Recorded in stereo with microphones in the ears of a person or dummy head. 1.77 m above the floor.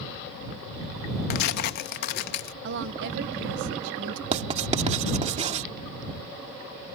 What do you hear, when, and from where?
1.3 s tearing paper: 55° left (ahead or behind)
2.6 s a woman speaking: 65° right (ahead or behind)
4.3 s writing: 35° right (ahead or behind)